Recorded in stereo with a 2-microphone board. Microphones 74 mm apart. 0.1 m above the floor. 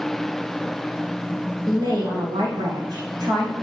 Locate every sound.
1.7 s a woman speaking: 70° right (ahead or behind), 4 m